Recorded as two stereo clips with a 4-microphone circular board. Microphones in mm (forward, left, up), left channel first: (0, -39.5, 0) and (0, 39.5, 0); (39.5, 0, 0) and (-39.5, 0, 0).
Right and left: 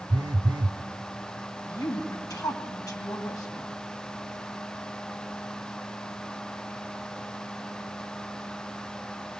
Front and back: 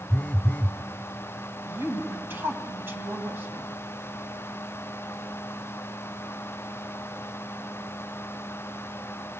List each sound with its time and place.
0.1 s a phone buzzing: 70° left, 0.6 m
1.7 s a woman speaking: 120° right, 3 m